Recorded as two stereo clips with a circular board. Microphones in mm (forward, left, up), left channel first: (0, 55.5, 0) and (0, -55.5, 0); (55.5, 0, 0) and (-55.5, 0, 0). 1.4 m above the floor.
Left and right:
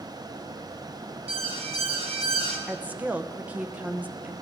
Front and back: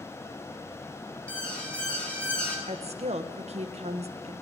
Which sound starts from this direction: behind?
A woman speaking, at 2.7 s.